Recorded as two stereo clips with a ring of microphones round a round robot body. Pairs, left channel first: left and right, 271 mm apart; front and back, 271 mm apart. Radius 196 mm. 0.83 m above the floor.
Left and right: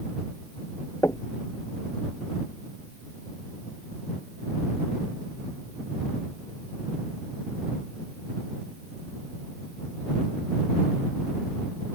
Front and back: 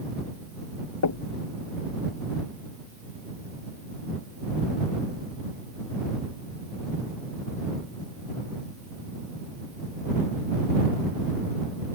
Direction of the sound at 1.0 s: 10° left.